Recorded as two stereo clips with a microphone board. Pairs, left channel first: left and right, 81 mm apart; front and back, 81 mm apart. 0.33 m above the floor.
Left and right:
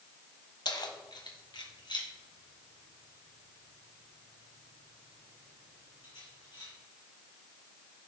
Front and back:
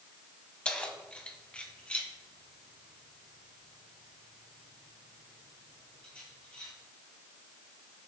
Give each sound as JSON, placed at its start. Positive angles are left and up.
{"t": 0.7, "sound": "keys jangling", "azimuth_deg": 75, "distance_m": 1.2}